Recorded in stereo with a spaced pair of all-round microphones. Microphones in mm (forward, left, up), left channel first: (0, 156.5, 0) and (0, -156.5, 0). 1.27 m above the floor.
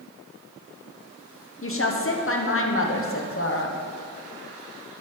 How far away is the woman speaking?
About 0.8 m.